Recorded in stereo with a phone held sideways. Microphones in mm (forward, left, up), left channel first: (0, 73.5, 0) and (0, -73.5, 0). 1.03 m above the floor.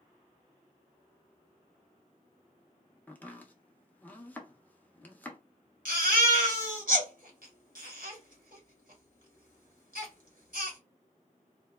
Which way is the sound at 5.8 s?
65° right (ahead or behind).